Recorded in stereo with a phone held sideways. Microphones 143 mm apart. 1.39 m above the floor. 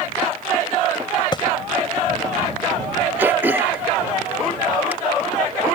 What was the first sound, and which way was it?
A thud, 30° left (ahead or behind).